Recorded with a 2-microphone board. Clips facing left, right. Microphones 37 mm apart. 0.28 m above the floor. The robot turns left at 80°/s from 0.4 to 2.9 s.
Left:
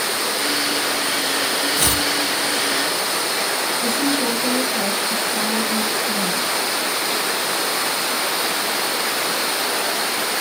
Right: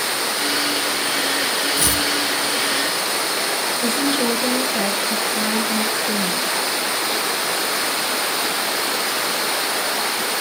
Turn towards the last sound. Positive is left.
turn(degrees=-60)  # may be behind; listen again after turning